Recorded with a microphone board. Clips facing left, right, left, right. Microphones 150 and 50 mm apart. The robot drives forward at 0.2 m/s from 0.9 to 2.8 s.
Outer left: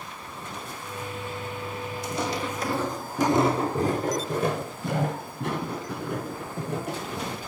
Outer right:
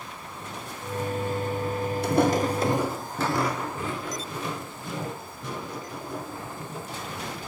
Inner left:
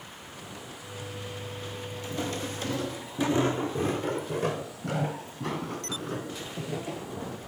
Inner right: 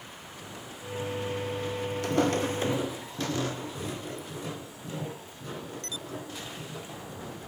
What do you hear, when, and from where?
2.0 s footsteps: 65° right (ahead or behind), 0.9 m; by 7.4 s 65° left (ahead or behind), 4 m